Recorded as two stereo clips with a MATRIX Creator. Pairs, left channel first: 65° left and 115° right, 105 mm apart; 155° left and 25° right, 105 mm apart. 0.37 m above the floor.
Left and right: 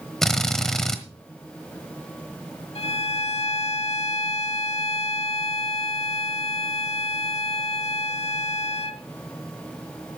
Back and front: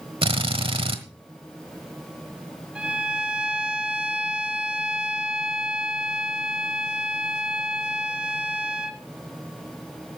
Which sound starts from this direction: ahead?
A drill, at 0.2 s.